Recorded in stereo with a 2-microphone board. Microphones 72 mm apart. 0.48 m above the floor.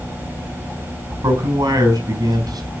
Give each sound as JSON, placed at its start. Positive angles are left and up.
{"t": 1.2, "sound": "a man speaking", "side_deg": -60, "distance_m": 4.0}